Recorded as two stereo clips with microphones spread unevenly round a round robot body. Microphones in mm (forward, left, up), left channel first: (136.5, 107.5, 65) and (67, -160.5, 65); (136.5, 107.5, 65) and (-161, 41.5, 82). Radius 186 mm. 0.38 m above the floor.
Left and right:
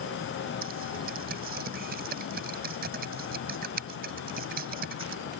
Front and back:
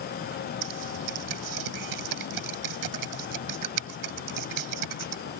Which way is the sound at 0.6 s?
165° right.